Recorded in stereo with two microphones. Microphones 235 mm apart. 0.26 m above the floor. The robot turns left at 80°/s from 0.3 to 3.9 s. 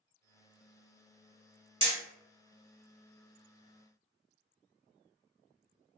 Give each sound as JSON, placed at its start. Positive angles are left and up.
{"t": 1.8, "sound": "hammering", "side_deg": -25, "distance_m": 1.3}